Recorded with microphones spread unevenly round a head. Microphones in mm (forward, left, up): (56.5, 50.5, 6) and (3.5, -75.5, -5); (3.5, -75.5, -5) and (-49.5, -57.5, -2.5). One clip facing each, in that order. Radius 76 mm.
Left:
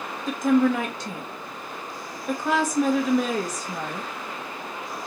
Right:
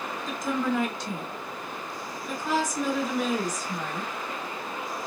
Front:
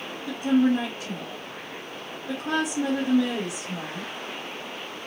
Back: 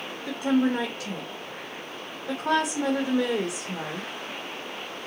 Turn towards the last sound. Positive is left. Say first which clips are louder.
# left 9 dB, front 2 dB
turn(degrees=115)